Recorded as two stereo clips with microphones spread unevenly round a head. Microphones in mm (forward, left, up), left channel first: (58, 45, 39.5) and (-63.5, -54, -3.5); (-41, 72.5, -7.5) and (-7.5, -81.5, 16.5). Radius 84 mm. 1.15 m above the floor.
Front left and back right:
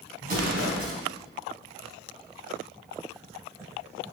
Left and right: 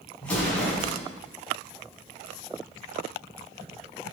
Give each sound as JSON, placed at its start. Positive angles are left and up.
{"t": 0.2, "sound": "an explosion", "azimuth_deg": -175, "distance_m": 5.5}